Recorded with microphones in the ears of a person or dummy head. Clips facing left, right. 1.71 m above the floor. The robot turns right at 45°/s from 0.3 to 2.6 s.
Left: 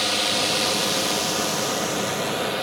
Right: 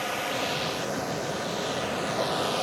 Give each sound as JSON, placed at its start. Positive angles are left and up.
{"t": 0.0, "sound": "a drone", "azimuth_deg": 50}